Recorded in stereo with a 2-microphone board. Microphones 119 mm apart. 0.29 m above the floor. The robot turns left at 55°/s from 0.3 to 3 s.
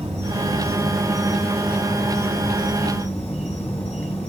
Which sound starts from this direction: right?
An insect, at 0.0 s.